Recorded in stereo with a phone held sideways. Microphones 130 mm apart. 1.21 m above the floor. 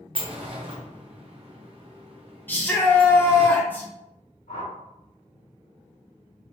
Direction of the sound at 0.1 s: 45° right (ahead or behind).